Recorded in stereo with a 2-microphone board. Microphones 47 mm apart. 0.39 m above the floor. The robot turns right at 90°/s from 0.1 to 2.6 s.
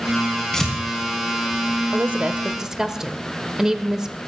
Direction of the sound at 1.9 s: 40° right (ahead or behind).